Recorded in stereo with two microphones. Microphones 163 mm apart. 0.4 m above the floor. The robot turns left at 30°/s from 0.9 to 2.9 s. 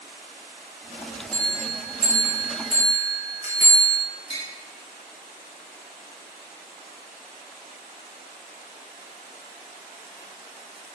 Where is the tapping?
35° left (ahead or behind), 1.1 m.